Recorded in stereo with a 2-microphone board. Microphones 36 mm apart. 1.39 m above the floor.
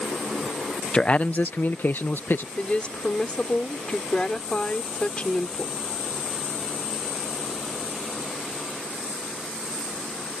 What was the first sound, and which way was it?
A man speaking, 25° left (ahead or behind).